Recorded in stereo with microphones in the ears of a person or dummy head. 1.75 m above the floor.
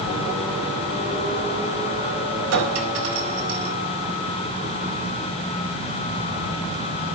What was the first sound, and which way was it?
A clink, 75° right (ahead or behind).